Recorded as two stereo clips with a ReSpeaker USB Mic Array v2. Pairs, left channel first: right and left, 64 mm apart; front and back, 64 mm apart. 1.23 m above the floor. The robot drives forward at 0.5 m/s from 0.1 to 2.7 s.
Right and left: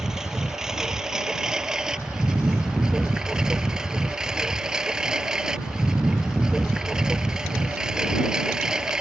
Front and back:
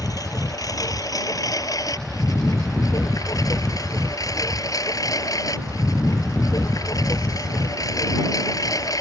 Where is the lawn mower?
10° left.